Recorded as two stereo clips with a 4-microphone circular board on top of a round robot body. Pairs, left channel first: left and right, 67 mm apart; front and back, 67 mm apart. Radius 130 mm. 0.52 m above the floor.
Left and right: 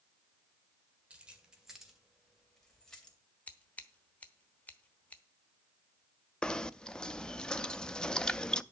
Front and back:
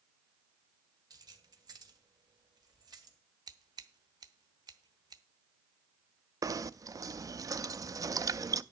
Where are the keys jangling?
165° right, 2 m; by 3.2 s 170° left, 2.5 m.